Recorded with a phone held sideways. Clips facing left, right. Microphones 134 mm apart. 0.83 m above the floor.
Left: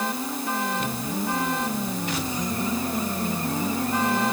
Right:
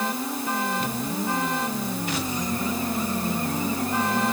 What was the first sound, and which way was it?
Only background noise.